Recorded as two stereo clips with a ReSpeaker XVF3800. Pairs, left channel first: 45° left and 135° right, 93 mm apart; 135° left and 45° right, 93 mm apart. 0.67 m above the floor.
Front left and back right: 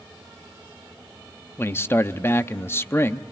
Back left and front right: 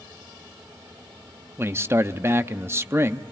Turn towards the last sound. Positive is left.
turn(degrees=0)